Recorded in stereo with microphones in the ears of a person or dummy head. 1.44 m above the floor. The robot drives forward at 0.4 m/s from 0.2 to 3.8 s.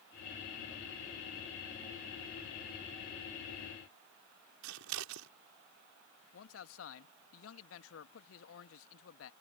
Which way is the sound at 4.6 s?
80° right.